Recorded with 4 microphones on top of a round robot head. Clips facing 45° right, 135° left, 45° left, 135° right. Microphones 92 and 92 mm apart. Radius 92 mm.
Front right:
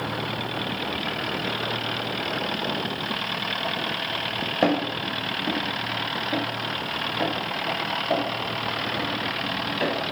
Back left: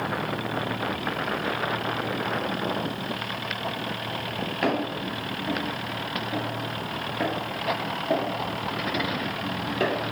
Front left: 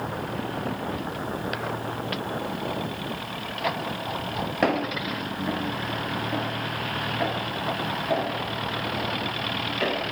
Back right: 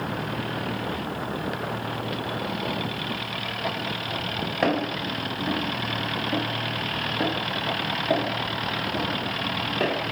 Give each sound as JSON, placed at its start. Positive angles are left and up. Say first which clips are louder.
{"t": 4.6, "sound": "footsteps", "louder": "front right 4 dB, even", "azimuth_deg": -40, "distance_m": 2.0}